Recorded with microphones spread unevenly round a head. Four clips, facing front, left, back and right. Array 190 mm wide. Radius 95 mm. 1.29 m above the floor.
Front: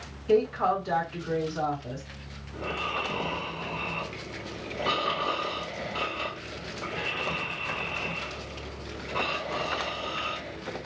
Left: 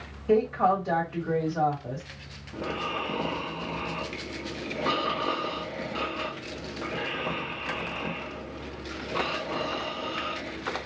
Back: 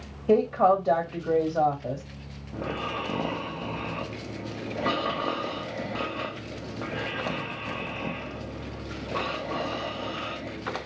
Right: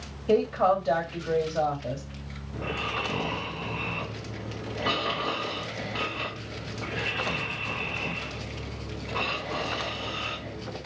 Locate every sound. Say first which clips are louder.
0.3 s a woman speaking: even, back 3 dB; 160° right, 2 m
2.5 s snoring: left 1 dB, back 1 dB; 175° left, 1.1 m